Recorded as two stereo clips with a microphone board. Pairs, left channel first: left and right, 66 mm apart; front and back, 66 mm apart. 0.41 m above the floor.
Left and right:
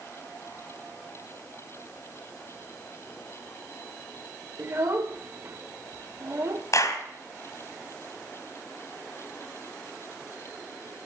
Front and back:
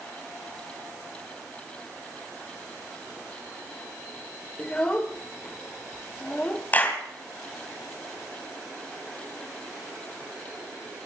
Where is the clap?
60° left, 2.5 m.